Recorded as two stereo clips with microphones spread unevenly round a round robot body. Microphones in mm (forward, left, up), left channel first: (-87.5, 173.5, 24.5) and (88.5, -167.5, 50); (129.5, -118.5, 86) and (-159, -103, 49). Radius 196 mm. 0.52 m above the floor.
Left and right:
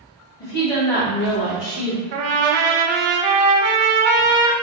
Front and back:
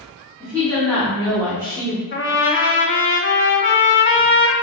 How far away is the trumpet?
About 0.7 m.